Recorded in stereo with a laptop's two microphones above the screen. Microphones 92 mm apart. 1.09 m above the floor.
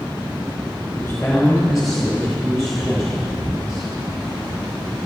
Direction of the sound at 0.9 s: 15° left (ahead or behind).